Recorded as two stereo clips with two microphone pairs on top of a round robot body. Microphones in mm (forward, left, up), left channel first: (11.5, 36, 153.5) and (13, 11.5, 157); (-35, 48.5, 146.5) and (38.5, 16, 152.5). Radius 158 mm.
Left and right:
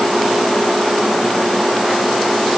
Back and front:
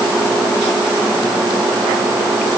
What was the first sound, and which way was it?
Only background noise.